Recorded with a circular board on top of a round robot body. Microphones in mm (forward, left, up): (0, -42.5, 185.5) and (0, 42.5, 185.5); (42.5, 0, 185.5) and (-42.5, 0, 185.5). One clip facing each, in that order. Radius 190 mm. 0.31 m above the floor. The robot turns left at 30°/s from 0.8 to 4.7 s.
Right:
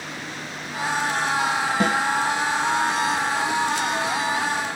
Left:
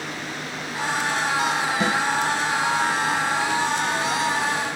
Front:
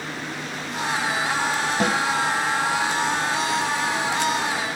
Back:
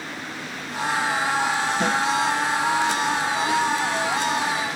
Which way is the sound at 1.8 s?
45° right.